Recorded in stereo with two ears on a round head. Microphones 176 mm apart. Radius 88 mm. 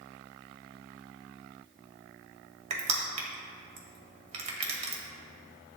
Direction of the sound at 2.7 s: 35° right (ahead or behind).